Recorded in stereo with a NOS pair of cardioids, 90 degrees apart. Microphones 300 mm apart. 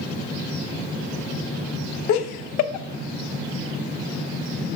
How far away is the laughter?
About 0.6 m.